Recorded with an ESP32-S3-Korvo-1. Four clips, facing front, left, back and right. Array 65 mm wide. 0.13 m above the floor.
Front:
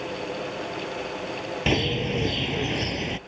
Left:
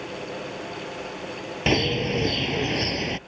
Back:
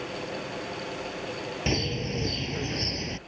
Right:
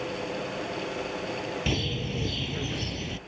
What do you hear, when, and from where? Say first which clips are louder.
1.7 s a bird: left 8 dB, front 6 dB; 70° left